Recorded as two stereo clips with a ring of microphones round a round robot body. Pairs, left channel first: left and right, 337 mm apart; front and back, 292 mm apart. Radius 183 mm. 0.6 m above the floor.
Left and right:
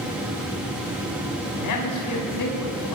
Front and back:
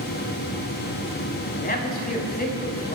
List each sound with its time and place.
1.6 s a man speaking: 60° left, 5.5 m